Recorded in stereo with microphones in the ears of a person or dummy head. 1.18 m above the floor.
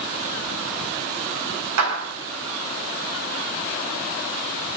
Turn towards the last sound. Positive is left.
turn(degrees=-90)